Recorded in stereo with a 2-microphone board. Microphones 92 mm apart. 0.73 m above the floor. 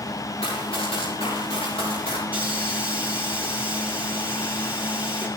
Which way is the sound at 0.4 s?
85° left.